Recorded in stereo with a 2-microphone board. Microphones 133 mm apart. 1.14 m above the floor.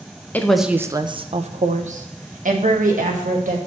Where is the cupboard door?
I don't hear a cupboard door.